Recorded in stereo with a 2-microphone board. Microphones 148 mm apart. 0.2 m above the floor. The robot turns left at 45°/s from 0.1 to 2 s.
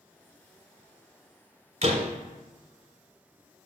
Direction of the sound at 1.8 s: 45° right (ahead or behind).